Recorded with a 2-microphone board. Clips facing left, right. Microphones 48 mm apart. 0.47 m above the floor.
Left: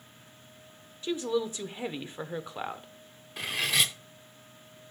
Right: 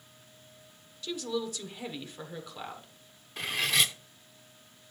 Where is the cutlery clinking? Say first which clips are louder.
Even; centre (ahead or behind), 0.6 m.